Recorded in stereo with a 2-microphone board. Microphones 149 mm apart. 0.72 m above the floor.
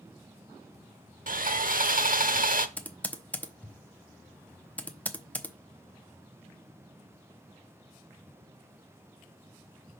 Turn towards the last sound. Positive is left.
turn(degrees=10)  # may be behind; listen again after turning